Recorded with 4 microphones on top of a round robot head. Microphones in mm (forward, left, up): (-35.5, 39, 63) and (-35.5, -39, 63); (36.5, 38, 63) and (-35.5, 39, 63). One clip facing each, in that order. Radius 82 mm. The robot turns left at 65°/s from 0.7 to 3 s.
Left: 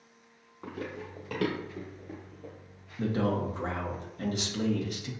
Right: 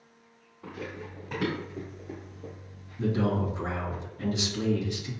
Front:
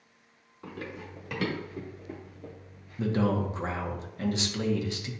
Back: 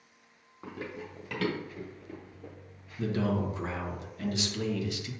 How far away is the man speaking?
About 1.1 m.